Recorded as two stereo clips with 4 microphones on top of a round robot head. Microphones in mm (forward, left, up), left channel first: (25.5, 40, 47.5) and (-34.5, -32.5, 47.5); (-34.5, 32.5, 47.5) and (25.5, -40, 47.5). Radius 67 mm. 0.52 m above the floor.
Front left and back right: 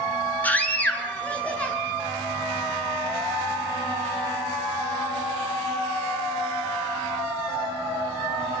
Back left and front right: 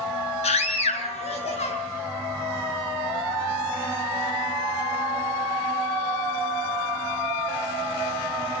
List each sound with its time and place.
0.4 s a scream: 125° left, 5.5 m; by 1.8 s 130° left, 7.5 m